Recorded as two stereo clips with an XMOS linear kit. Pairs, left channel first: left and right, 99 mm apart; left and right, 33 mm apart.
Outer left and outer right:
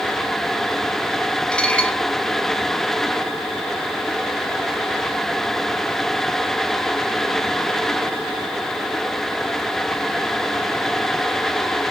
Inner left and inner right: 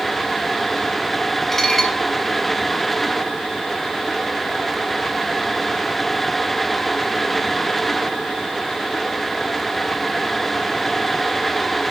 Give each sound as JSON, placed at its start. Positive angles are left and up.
{"t": 1.5, "sound": "dishes clattering", "side_deg": 10, "distance_m": 2.0}